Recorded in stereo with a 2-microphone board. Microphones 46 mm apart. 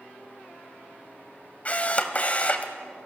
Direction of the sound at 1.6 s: 30° left (ahead or behind).